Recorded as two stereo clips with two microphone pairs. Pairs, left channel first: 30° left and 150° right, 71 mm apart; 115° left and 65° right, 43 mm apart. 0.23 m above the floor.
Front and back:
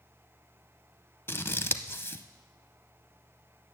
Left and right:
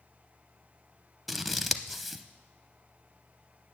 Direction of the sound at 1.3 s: 20° left.